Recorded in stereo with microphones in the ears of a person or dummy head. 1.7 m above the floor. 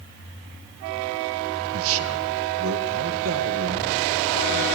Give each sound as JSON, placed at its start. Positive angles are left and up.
{"t": 1.7, "sound": "a man speaking", "side_deg": -75, "distance_m": 2.0}